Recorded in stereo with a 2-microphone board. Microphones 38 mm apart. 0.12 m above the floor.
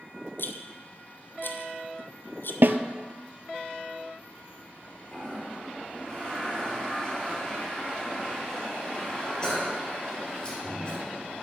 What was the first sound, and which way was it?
A rattle, 60° left (ahead or behind).